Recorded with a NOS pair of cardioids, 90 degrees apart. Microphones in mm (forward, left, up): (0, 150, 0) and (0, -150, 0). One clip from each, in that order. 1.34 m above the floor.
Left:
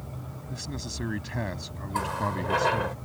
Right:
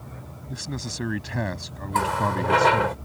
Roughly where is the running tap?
Ahead right.